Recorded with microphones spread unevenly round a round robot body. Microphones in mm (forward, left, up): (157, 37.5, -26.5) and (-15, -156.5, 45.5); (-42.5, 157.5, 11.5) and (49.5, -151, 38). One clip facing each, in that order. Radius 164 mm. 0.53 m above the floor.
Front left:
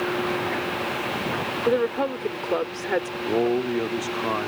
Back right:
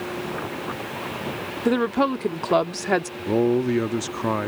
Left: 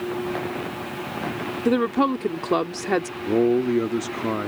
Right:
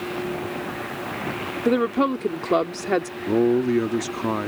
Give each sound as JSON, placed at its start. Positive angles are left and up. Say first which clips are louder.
{"t": 1.6, "sound": "a woman speaking", "louder": "back right 2 dB, even", "azimuth_deg": -175}
{"t": 3.2, "sound": "a man speaking", "louder": "back right 2 dB, even", "azimuth_deg": -155}